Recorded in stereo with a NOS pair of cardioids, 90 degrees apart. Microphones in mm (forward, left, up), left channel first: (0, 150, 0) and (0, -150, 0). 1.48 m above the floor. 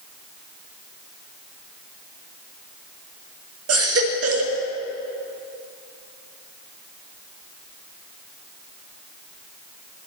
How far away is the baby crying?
About 1.9 m.